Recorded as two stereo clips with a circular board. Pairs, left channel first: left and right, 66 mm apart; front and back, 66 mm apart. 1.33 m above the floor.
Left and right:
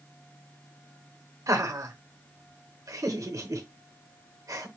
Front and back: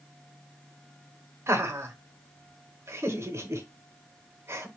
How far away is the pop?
No pop in this recording.